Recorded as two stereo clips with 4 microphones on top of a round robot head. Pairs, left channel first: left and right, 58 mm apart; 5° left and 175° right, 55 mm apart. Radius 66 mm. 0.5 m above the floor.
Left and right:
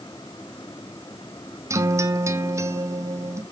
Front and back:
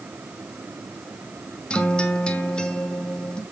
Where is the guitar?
65° right, 1.2 m.